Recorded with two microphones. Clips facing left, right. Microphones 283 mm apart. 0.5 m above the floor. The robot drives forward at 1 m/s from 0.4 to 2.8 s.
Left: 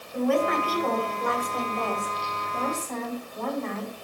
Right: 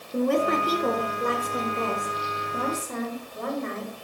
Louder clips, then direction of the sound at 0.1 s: Right 1 dB; 45° right (ahead or behind).